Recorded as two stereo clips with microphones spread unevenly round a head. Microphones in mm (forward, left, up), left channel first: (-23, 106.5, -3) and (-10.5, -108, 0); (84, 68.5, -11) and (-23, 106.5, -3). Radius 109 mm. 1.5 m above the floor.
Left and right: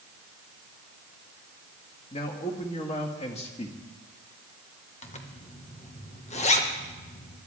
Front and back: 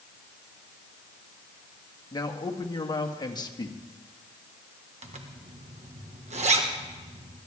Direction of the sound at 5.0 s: 150° left.